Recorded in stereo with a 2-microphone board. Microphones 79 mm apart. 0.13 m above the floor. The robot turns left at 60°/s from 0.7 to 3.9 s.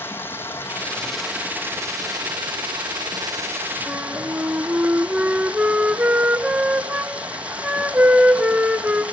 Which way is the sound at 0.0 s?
30° left.